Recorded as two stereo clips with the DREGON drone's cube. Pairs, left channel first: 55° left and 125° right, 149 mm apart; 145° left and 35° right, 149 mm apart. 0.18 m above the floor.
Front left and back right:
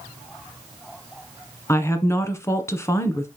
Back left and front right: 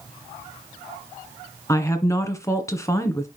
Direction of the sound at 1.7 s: 105° left.